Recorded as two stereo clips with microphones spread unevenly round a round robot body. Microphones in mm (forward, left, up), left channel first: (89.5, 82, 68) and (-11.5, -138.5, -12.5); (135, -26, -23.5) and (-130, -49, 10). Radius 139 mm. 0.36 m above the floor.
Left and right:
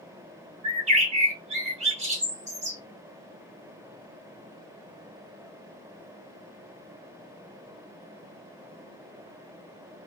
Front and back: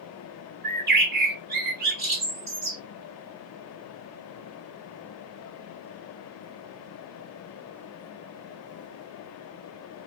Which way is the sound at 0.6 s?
125° right.